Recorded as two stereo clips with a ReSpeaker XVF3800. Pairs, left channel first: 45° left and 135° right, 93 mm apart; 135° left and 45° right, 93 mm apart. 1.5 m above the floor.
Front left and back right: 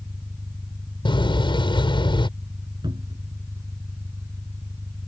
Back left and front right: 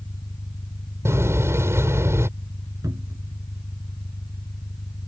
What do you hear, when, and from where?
0.0 s an engine running: 165° left
1.1 s a door slam: 15° left
2.8 s a cupboard door: 100° right